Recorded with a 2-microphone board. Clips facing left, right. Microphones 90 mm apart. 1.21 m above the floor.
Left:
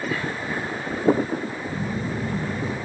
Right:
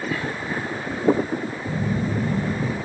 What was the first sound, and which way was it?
A phone buzzing, 50° right (ahead or behind).